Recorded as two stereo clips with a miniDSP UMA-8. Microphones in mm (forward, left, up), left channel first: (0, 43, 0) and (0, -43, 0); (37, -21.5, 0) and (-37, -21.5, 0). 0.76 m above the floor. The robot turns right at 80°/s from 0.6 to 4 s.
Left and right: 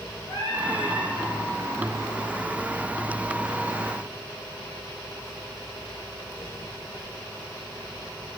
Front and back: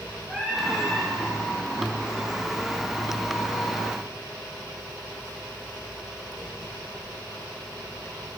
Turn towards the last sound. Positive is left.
turn(degrees=10)